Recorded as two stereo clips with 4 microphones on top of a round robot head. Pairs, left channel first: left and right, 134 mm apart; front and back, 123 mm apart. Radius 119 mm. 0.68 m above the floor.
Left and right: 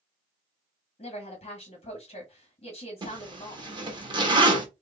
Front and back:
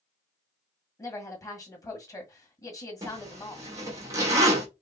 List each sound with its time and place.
1.0 s a woman speaking: 60° left, 1.7 m
3.0 s a zipper: 130° right, 1.5 m